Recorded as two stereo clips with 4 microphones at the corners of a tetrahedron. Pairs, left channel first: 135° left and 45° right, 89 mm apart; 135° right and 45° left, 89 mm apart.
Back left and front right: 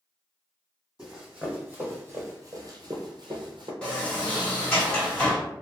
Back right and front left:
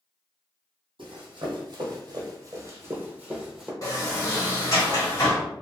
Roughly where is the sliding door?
Behind right.